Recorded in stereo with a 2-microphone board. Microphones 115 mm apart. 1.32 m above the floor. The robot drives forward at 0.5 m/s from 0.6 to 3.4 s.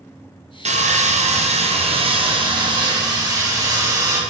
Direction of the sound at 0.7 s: 70° right (ahead or behind).